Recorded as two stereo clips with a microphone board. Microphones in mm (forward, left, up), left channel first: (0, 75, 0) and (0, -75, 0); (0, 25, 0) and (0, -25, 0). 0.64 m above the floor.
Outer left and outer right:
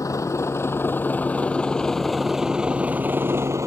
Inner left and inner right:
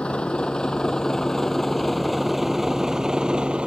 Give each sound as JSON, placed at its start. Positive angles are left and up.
{"t": 0.0, "sound": "a vehicle", "side_deg": 20}